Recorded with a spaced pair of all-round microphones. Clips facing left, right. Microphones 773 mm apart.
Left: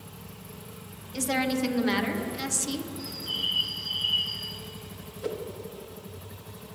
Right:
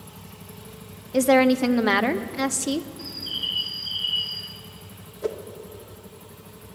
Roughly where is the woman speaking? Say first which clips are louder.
Right 10 dB; right.